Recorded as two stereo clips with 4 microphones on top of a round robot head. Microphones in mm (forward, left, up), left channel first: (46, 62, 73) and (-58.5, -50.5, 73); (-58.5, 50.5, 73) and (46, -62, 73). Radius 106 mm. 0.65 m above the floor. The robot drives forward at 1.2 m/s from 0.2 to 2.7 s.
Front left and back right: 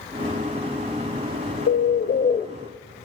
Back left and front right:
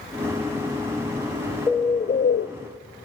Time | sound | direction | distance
1.7 | a bird | 55° left | 1.1 m